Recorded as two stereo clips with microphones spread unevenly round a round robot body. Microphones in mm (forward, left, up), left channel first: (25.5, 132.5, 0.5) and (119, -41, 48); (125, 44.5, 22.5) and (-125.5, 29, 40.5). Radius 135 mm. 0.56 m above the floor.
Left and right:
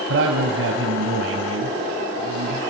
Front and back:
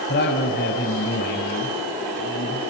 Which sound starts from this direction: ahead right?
A man speaking, at 0.1 s.